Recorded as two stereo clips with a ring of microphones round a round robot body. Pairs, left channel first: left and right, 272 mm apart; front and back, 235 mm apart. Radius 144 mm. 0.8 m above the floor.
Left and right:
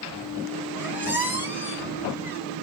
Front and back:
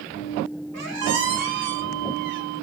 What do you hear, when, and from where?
0.7 s a squeak: 170° right, 1.5 m